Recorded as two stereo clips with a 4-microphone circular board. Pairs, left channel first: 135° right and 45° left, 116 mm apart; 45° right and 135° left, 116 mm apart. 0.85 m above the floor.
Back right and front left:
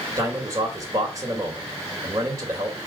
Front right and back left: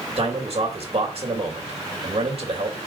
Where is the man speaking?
95° left, 2.5 m.